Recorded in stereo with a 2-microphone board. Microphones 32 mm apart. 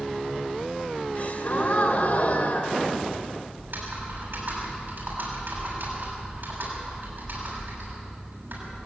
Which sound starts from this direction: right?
Typing on a keyboard, at 3.6 s.